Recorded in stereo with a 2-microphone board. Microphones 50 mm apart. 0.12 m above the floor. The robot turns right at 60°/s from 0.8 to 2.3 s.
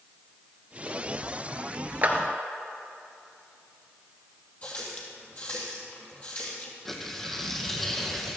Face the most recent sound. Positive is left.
turn(degrees=5)  # may be behind; listen again after turning